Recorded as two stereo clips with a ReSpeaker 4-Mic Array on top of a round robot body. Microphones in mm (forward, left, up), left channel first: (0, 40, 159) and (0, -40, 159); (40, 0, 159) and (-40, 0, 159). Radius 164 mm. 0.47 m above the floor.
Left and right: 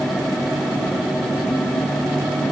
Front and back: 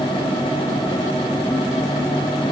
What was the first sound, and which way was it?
Only background noise.